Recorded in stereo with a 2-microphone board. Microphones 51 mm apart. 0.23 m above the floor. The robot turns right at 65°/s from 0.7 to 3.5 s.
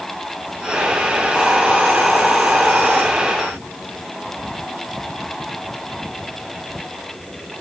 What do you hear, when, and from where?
1.3 s a hiss: 160° right, 2.5 m; by 3.0 s 55° right, 2.5 m